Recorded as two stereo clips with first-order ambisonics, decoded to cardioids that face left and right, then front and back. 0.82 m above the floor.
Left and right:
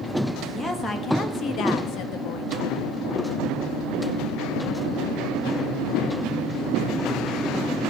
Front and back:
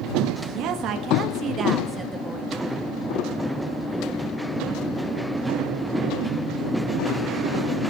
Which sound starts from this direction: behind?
A woman speaking, at 0.4 s.